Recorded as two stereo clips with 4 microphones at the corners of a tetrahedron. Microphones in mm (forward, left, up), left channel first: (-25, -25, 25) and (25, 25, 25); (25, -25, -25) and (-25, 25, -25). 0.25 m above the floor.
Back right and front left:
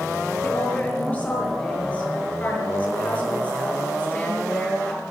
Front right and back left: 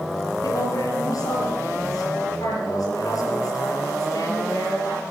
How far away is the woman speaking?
About 5.5 m.